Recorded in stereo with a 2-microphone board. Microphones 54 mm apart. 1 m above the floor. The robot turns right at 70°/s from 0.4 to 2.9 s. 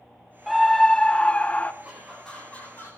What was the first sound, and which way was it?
A scream, centre (ahead or behind).